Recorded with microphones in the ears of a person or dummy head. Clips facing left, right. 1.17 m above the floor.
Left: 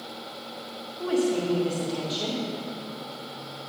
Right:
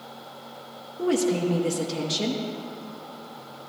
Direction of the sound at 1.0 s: 55° right (ahead or behind).